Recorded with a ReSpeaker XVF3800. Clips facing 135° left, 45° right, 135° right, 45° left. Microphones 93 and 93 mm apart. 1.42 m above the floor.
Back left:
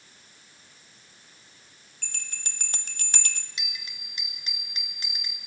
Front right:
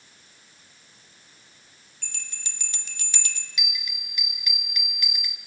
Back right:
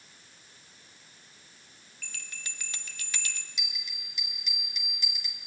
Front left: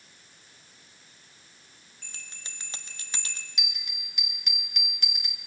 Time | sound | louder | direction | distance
2.0 | a bell | back left 1 dB, back right 3 dB | 100° left | 1.2 m
3.6 | a bell | front right 4 dB, front left 2 dB | 75° left | 1.5 m